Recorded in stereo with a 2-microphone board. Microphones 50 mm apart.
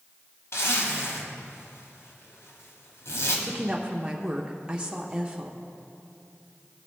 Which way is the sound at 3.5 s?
20° right (ahead or behind).